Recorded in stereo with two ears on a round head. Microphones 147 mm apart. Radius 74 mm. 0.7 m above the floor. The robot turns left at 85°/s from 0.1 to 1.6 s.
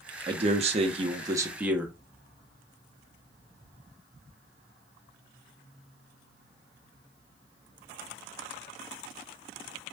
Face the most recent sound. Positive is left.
turn(degrees=-165)